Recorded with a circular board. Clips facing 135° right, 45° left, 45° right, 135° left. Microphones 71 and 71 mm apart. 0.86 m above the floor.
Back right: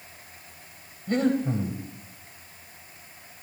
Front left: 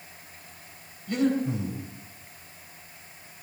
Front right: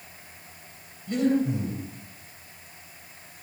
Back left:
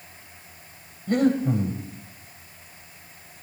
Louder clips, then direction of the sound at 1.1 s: Back right 1 dB, back left 2 dB; 175° left.